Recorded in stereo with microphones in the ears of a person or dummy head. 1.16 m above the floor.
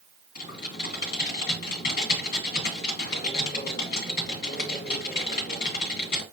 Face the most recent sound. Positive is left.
turn(degrees=55)  # may be behind; listen again after turning